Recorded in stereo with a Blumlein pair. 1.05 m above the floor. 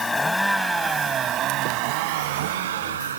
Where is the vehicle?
15° left; by 3.2 s 65° right.